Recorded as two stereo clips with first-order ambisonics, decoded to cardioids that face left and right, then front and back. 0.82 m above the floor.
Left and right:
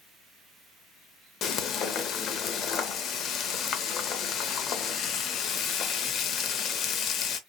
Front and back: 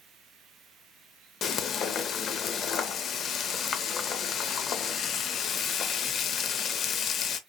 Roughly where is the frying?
Ahead left.